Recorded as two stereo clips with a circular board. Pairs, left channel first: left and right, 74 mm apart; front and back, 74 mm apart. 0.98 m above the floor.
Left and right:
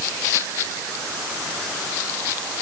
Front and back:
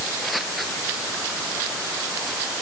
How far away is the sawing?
I don't hear sawing.